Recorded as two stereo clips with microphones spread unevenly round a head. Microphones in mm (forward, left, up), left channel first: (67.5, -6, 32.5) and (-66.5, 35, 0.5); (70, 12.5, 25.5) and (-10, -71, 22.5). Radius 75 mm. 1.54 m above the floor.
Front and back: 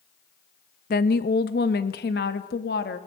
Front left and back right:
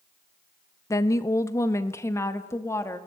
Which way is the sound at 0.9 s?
15° right.